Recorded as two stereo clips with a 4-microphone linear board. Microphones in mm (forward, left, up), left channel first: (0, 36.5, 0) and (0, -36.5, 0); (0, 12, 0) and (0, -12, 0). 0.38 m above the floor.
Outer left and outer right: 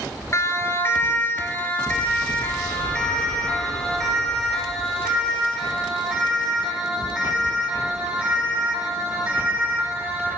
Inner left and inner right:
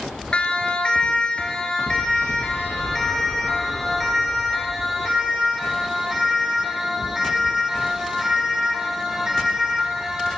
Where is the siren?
40° left (ahead or behind), 6 m; by 10.3 s 15° right (ahead or behind), 18 m.